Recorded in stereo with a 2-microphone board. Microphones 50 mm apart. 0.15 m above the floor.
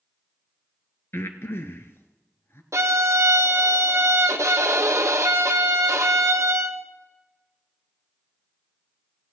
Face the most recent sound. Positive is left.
turn(degrees=-80)